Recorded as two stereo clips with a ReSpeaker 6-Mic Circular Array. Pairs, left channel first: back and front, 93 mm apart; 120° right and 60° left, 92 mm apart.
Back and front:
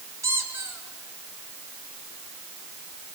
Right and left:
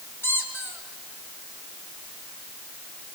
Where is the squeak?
55° right, 2.5 m.